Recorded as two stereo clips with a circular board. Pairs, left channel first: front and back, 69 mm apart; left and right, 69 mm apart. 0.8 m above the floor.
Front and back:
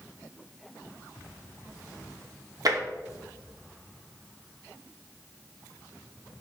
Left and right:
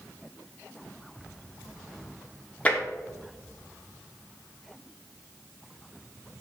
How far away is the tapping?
About 1.3 m.